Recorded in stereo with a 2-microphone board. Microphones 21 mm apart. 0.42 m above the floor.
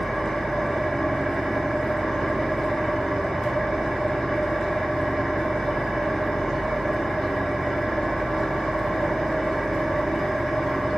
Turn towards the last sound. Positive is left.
turn(degrees=30)  # may be behind; listen again after turning